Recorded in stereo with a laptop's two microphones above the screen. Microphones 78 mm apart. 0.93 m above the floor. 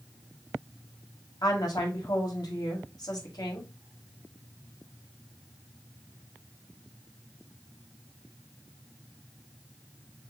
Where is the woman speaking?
55° left (ahead or behind), 1.5 m.